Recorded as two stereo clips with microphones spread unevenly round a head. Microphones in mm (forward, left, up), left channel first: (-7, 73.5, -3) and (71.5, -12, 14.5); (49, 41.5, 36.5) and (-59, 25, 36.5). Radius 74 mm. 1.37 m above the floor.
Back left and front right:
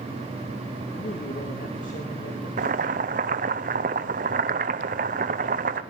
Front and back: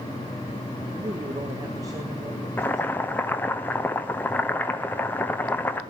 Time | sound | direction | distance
0.9 | a man speaking | 130° left | 1.8 m
2.6 | boiling | 65° right | 0.9 m